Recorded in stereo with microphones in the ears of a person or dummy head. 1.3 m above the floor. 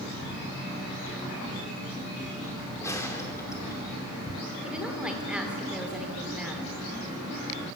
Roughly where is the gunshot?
Centre.